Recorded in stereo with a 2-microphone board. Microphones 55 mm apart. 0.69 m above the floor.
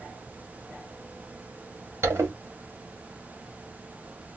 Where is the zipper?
55° right (ahead or behind), 1.6 m.